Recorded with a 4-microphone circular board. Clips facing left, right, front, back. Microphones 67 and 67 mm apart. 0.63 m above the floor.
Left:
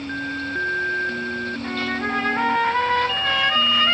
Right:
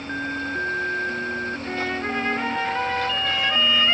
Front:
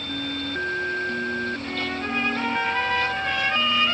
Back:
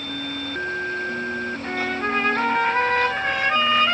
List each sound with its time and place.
1.6 s a trumpet: 135° left, 3.5 m